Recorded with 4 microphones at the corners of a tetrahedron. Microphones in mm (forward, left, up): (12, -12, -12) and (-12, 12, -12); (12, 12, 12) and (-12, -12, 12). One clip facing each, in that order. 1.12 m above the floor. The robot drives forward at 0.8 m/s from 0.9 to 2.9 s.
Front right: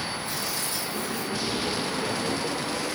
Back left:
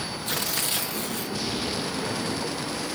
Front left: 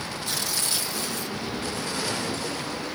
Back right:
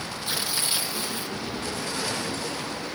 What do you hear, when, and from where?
0.3 s tearing paper: 160° left, 1.5 m; by 1.4 s 165° left, 1.8 m